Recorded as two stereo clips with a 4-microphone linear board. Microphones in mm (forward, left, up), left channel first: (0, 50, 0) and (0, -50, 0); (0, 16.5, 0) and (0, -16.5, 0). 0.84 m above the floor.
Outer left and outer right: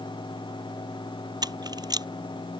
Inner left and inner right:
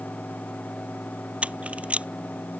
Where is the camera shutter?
45° right (ahead or behind).